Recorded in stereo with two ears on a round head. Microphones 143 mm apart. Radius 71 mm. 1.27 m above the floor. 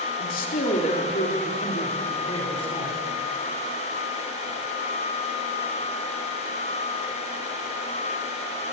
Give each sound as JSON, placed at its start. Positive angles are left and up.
{"t": 0.2, "sound": "a man speaking", "side_deg": 60, "distance_m": 3.5}